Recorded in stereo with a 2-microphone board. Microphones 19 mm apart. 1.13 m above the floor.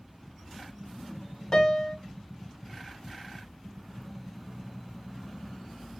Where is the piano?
40° left (ahead or behind), 1.2 m.